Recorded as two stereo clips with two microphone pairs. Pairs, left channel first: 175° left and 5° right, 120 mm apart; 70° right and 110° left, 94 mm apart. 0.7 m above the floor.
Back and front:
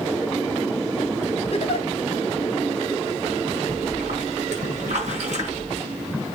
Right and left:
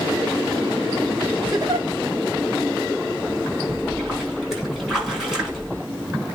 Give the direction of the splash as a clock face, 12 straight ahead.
11 o'clock.